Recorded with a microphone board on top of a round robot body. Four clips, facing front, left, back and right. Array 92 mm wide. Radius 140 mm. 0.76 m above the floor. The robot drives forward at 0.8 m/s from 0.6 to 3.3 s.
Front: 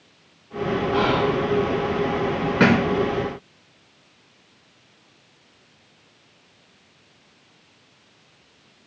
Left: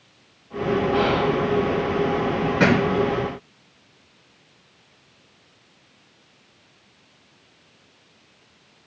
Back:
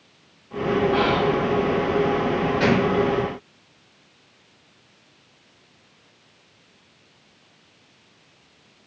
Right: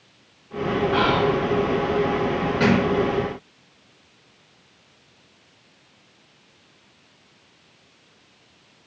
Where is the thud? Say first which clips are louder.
Left 1 dB, front 4 dB; 15° left, 4 m; by 2.9 s 20° left, 4 m.